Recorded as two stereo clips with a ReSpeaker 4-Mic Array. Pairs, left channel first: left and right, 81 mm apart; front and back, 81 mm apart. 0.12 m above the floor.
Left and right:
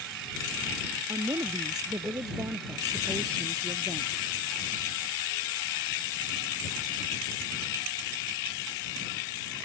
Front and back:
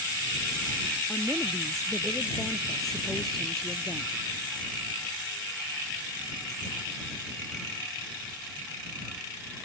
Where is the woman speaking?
85° right.